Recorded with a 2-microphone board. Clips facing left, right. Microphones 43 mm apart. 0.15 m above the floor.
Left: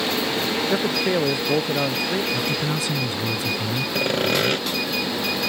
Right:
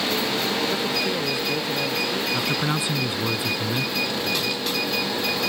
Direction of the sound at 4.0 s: 50° left (ahead or behind).